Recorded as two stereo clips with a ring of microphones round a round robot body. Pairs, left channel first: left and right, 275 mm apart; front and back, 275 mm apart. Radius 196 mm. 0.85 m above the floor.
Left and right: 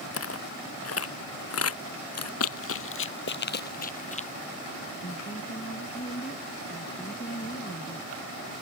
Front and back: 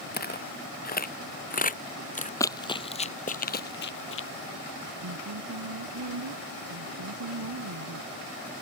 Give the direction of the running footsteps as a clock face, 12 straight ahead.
9 o'clock.